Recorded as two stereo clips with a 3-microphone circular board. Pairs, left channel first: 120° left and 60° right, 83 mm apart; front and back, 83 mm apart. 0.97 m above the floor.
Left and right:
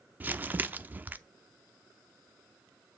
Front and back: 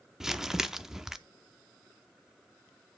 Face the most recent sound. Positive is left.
turn(degrees=-100)